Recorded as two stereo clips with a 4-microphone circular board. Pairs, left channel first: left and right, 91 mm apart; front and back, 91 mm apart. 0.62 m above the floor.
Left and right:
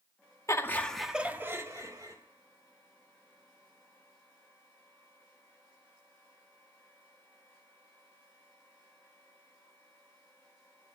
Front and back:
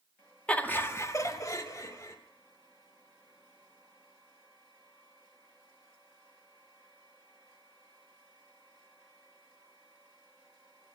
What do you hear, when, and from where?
0.5 s laughter: 65° left, 1.1 m; by 2.2 s 50° right, 2.0 m